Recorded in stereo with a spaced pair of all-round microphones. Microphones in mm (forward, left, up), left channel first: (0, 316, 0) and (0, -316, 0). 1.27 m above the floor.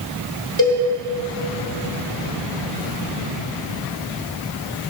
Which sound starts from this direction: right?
A cowbell, at 0.6 s.